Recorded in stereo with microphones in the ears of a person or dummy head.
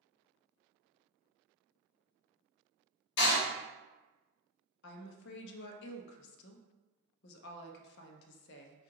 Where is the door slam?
60° left (ahead or behind), 1.2 m.